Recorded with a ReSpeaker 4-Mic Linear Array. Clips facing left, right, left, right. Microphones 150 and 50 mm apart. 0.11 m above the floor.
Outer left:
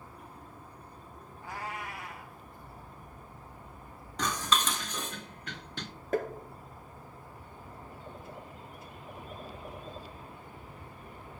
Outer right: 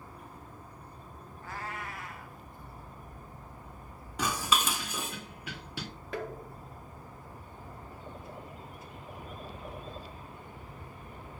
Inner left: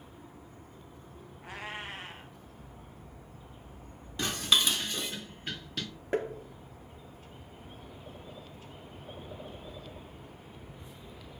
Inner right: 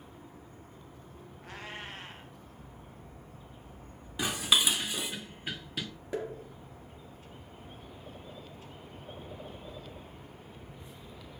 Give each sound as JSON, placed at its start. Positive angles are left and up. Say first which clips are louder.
{"t": 1.4, "sound": "a cat meowing", "louder": "outer left 1 dB, inner left 3 dB", "side_deg": 15, "distance_m": 1.5}
{"t": 4.2, "sound": "dishes clattering", "louder": "even, even", "side_deg": -10, "distance_m": 0.7}
{"t": 6.1, "sound": "tapping", "louder": "outer left 6 dB, inner left 4 dB", "side_deg": 45, "distance_m": 0.9}